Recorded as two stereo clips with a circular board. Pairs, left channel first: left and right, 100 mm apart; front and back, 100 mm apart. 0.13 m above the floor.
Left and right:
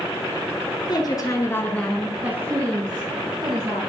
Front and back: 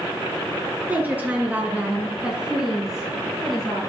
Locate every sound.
0.9 s a woman speaking: 110° left, 1.7 m; by 3.8 s 90° right, 2.5 m